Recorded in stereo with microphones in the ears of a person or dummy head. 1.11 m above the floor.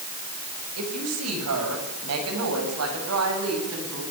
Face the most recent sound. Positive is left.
turn(degrees=-80)